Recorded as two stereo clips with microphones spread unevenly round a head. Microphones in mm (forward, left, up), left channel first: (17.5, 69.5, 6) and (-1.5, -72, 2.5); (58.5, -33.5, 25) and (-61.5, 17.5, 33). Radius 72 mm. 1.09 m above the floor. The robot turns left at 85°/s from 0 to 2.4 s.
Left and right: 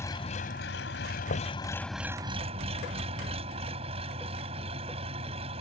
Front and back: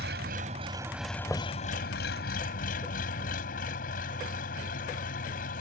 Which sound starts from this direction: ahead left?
Knocking, at 1.3 s.